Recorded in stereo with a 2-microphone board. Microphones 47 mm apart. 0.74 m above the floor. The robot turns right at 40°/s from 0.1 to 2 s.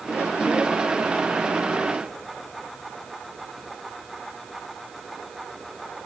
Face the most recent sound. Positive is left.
No sound to turn to.